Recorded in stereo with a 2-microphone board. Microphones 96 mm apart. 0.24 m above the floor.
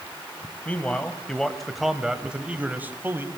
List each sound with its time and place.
0.7 s a man speaking: 15° left (ahead or behind), 1.4 m; by 3.3 s 25° right (ahead or behind), 1.4 m